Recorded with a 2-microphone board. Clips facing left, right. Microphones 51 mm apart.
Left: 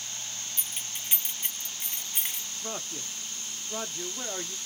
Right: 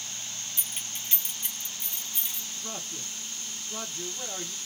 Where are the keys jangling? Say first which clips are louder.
Even; 5° right (ahead or behind), 0.6 m; by 2.5 s 60° left (ahead or behind), 0.9 m.